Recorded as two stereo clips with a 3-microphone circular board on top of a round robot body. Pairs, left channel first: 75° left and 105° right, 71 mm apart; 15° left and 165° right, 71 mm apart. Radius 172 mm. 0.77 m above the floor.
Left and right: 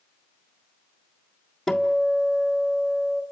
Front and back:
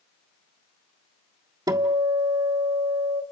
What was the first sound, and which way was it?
A guitar, 165° left.